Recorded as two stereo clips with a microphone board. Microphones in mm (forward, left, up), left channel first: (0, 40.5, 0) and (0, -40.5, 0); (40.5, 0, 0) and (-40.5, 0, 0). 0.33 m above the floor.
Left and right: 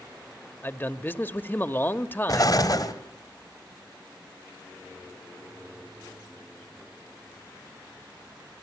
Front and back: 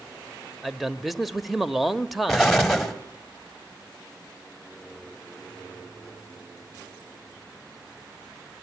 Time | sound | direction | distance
0.6 | a man speaking | 90° left | 0.9 m
2.3 | an explosion | 90° left | 2 m